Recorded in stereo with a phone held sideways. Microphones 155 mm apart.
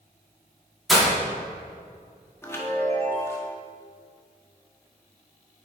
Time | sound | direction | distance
0.9 | breaking glass | centre (ahead or behind) | 2.5 m
2.4 | a chime | 15° left (ahead or behind) | 1.2 m